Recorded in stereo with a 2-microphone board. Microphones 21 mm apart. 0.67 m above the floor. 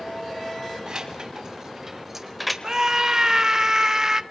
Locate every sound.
0.9 s keys jangling: 50° right (ahead or behind), 3 m; by 2.5 s centre (ahead or behind), 1.5 m
2.6 s a scream: 30° right (ahead or behind), 0.5 m